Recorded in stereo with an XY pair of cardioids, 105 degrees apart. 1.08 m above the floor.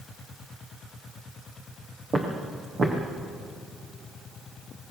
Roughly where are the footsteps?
Ahead right.